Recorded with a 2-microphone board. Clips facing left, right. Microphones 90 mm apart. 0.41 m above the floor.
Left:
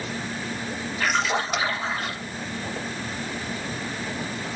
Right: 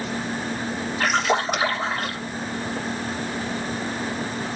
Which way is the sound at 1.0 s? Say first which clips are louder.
Right 3 dB; 50° right (ahead or behind).